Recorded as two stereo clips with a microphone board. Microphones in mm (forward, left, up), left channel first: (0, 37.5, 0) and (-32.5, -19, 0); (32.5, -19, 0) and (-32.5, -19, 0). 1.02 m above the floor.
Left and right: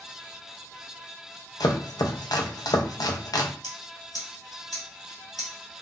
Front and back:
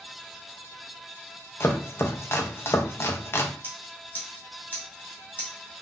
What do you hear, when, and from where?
1.6 s chopping: 50° left, 0.7 m
3.6 s scissors: 60° left, 2.5 m